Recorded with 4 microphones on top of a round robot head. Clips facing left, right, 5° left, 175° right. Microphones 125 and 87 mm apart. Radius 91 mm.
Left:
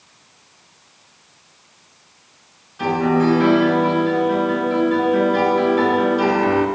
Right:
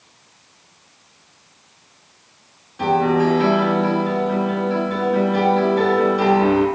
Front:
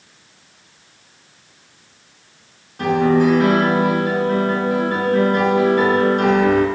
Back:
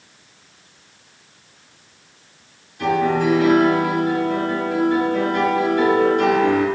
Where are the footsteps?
I don't hear footsteps.